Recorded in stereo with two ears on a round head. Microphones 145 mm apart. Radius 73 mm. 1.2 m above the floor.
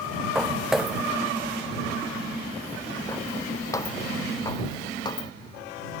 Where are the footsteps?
5° right (ahead or behind); by 5.3 s 25° left (ahead or behind).